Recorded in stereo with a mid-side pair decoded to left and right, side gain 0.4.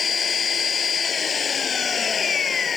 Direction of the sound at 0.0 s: 45° left.